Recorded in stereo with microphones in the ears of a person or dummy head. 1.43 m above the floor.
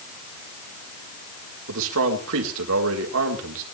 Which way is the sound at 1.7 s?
70° right (ahead or behind).